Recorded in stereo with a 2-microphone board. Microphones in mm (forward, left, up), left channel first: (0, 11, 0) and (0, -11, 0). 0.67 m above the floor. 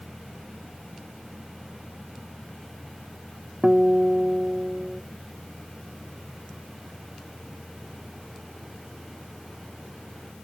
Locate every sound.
3.6 s a guitar: 25° right (ahead or behind)